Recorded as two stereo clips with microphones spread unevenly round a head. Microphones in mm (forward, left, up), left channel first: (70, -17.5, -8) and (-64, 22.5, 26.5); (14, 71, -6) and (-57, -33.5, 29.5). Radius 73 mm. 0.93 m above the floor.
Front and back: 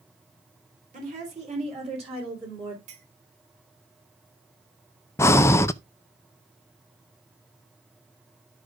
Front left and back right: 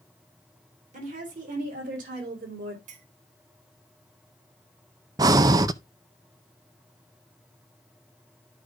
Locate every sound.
0.9 s a woman speaking: 155° right, 3.5 m; by 2.8 s 135° right, 3 m
2.9 s a clink: 150° right, 2 m
5.2 s breathing: 55° right, 0.5 m